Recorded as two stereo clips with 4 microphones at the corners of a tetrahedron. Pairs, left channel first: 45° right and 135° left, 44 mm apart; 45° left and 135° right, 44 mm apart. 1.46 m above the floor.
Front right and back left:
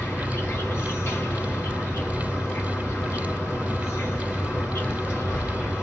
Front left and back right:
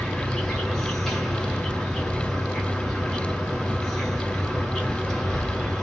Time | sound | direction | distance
0.0 | an insect | 30° right | 1.9 m